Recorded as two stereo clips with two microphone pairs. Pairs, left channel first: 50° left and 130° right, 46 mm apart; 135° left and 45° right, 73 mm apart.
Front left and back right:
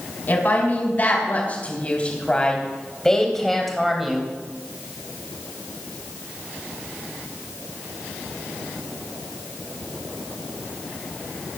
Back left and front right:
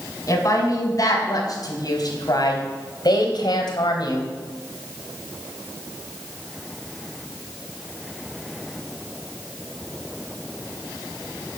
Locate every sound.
0.3 s a woman speaking: 100° left, 4 m; by 4.3 s 150° left, 2.5 m